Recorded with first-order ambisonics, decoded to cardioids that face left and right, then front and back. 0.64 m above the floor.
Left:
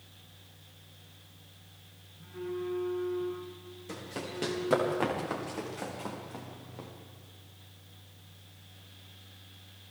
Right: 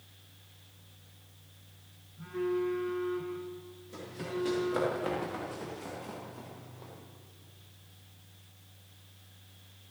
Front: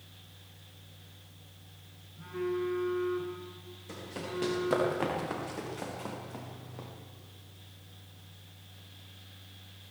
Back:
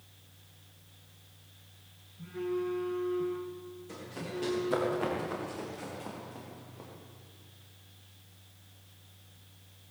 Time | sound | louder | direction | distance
2.2 | a phone buzzing | right 5 dB, front 1 dB | 35° right | 9.5 m
3.9 | running footsteps | even, front 2 dB | 65° left | 10 m